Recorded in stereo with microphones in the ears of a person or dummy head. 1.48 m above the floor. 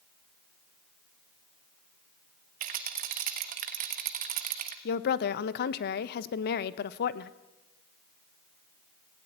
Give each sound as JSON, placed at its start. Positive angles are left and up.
{"t": 2.6, "sound": "a rattle", "side_deg": -50, "distance_m": 1.2}
{"t": 4.8, "sound": "a woman speaking", "side_deg": 60, "distance_m": 1.0}